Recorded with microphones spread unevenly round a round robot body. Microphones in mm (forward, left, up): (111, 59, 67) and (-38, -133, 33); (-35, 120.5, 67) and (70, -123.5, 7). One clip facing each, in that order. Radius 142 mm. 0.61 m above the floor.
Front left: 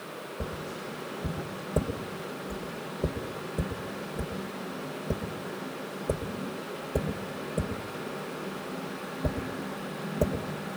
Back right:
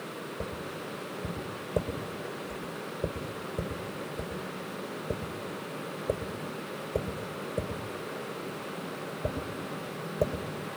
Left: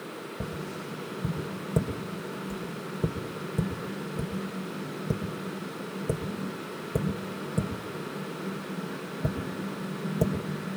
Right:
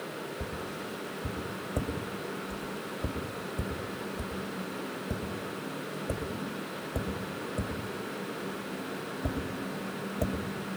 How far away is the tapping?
About 2 m.